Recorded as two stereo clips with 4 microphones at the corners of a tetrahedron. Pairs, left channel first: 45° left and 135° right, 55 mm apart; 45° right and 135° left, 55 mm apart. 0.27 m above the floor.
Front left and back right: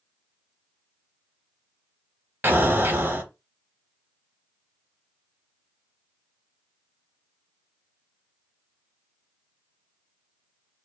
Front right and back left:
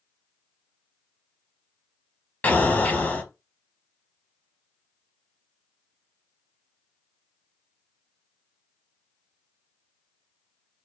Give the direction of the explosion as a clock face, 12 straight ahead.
3 o'clock.